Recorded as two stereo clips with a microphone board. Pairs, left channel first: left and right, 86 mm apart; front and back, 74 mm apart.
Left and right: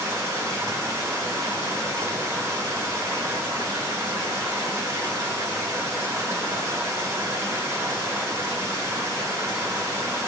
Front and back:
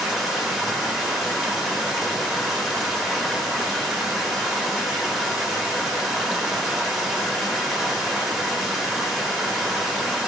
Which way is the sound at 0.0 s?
90° right.